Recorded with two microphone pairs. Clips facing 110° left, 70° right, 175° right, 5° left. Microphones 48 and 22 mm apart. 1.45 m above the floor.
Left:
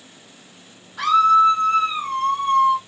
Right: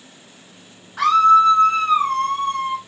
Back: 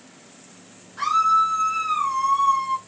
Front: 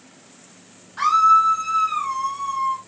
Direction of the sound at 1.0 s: 50° right.